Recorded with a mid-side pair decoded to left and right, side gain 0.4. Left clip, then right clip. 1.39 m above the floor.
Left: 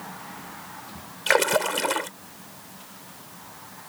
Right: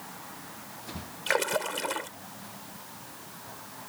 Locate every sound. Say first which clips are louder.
1.3 s a splash: left 7 dB; 45° left